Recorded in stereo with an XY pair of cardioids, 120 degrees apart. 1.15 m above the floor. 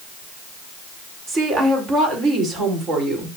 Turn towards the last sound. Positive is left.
turn(degrees=-60)